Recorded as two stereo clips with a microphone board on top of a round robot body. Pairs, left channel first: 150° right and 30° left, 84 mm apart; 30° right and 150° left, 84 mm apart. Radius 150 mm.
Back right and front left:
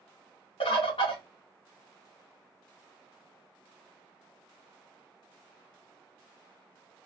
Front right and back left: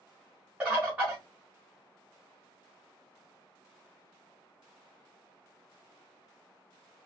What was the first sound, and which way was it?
A bird, 135° right.